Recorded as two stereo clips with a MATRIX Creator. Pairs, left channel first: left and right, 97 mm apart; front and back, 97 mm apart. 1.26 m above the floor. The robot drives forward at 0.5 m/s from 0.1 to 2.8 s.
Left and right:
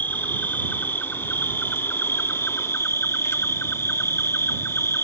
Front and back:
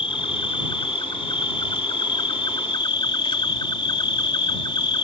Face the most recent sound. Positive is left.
turn(degrees=30)